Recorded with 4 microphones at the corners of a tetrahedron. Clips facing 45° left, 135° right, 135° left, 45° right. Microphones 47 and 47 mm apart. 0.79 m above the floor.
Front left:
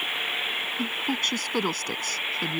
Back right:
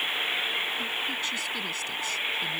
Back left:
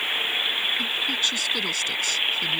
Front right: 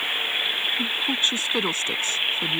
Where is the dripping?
I don't hear dripping.